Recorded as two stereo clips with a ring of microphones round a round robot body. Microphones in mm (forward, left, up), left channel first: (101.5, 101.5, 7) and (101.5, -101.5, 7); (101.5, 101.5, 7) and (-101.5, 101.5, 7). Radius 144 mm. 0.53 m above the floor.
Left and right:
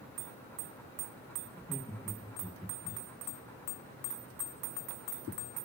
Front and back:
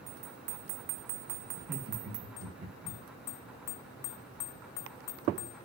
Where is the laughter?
170° left, 1.0 m.